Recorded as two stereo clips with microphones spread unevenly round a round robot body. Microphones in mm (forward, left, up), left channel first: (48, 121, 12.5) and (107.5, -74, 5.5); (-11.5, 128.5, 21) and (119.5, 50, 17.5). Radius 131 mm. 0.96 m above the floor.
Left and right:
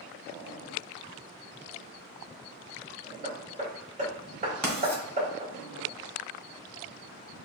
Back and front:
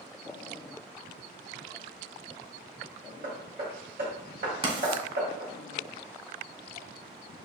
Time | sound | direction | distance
3.2 | hammering | 20° right | 2 m
4.6 | writing | 20° left | 2.0 m